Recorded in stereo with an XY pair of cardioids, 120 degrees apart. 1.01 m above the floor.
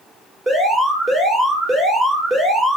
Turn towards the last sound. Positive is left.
turn(degrees=-15)